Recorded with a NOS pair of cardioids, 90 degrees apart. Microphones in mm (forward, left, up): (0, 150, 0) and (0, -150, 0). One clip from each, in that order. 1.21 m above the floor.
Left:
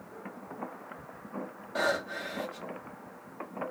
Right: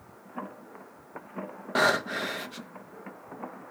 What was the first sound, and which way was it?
Breathing, 60° right.